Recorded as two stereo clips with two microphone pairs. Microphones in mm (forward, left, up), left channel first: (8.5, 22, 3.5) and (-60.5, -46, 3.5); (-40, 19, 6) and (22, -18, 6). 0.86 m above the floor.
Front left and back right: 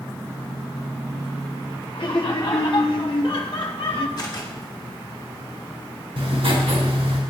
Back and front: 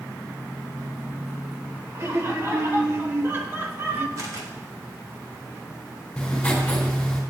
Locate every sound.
1.9 s laughter: 20° left, 2.5 m; by 4.1 s 25° left, 1.7 m
4.2 s a camera shutter: 5° left, 2 m
6.2 s writing: 130° right, 3.5 m